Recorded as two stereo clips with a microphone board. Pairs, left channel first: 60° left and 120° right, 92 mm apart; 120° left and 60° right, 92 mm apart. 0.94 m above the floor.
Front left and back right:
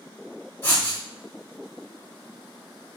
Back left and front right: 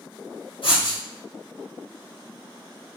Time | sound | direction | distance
0.6 | writing | 125° left | 1.3 m